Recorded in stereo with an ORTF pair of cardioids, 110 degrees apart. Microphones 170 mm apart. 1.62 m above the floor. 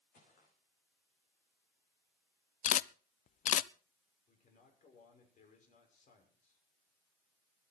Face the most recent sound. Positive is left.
turn(degrees=45)